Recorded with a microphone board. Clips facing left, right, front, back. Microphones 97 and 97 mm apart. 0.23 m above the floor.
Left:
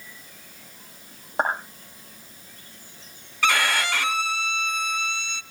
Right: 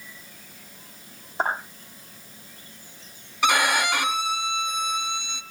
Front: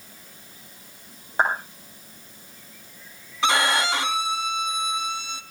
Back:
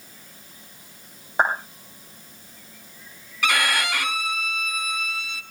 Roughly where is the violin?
Ahead right.